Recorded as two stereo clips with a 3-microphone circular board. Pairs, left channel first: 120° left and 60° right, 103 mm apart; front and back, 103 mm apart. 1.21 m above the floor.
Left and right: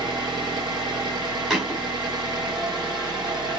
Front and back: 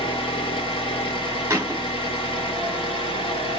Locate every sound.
0.0 s an engine running: 20° right, 1.0 m
1.5 s a thud: 140° right, 1.2 m